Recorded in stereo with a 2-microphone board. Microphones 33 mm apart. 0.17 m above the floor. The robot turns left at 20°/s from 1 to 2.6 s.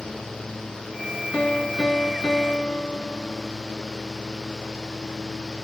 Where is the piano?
40° left (ahead or behind), 1.2 m; by 3.5 s 20° left (ahead or behind), 1.2 m.